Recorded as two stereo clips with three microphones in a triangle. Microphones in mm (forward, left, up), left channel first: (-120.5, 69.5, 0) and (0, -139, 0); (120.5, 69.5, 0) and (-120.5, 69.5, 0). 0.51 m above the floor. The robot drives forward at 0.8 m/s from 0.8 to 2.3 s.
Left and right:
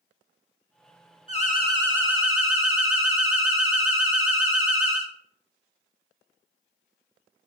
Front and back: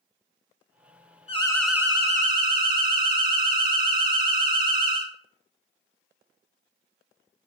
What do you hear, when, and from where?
1.3 s an alarm: 60° left, 0.7 m; by 5.1 s 130° left, 0.8 m